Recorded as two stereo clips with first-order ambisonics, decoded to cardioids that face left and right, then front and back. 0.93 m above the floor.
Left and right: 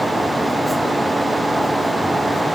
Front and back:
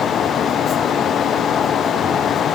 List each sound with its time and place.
Only background noise.